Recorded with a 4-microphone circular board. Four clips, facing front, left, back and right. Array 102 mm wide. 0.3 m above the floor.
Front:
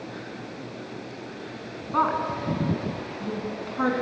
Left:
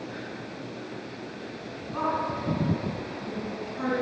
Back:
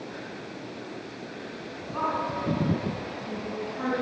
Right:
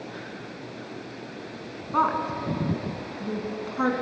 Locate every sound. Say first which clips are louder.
1.9 s a woman speaking: right 4 dB, front 4 dB; 55° right, 3.5 m